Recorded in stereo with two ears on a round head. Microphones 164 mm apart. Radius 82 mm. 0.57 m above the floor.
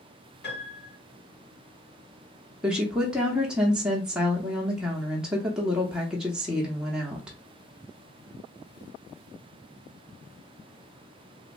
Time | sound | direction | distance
0.4 | a piano | 65° left (ahead or behind) | 1.8 m
2.6 | a woman speaking | 5° right (ahead or behind) | 0.6 m